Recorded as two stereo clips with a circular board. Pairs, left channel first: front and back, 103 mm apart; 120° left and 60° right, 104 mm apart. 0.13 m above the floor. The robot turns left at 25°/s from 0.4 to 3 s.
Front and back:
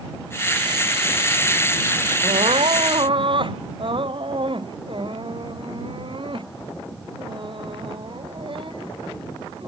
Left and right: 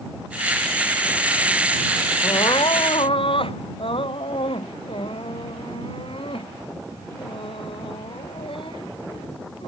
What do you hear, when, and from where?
2.2 s crying: 165° left; by 9.7 s 145° left